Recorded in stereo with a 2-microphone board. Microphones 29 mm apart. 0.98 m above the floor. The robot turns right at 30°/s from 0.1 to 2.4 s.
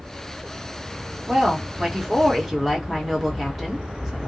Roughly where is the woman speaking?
Ahead right.